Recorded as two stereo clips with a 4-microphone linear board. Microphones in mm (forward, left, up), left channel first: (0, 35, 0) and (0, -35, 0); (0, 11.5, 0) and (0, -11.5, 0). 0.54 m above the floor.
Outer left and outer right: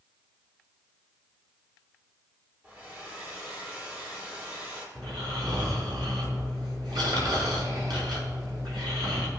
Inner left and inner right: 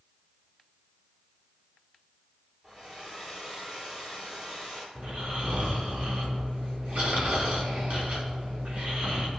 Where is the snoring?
80° right, 3.5 m.